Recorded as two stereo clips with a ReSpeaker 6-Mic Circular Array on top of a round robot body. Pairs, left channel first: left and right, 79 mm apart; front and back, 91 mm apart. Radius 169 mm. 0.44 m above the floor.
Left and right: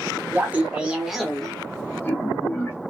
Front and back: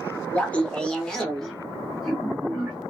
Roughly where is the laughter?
Ahead right.